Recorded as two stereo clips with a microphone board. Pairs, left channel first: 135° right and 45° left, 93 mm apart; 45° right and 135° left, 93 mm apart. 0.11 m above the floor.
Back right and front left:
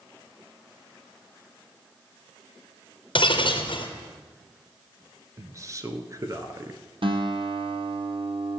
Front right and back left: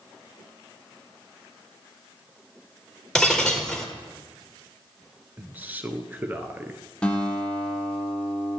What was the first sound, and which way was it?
Breaking glass, 130° right.